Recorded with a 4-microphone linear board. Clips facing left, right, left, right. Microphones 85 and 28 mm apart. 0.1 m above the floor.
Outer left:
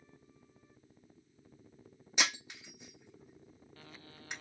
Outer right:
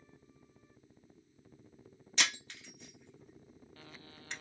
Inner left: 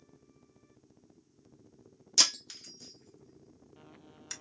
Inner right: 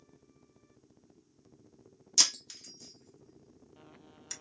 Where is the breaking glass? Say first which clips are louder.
Outer left 1 dB, inner left 1 dB; 15° left (ahead or behind), 2 m.